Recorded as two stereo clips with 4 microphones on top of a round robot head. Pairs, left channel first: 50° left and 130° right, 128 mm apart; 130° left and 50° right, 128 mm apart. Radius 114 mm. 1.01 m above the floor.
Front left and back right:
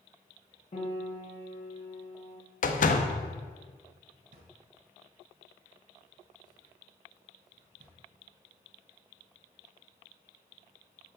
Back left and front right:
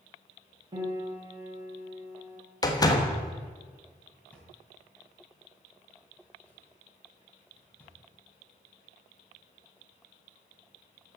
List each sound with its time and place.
0.7 s a piano: 5° left, 3 m
2.6 s a door slam: 65° left, 1.3 m
4.3 s a drawer: 150° right, 3.5 m